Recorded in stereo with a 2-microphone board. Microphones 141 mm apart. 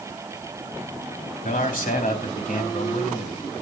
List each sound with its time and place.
1.4 s a man speaking: 80° left, 3 m